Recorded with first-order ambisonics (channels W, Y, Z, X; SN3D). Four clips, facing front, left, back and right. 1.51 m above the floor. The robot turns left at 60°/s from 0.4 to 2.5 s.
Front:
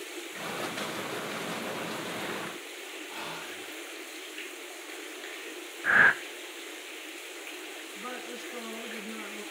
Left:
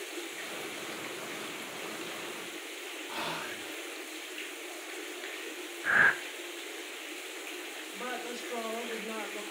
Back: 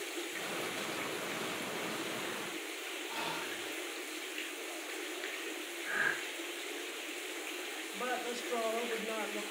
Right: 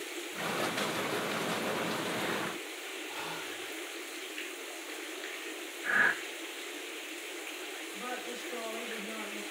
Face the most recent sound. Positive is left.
turn(degrees=145)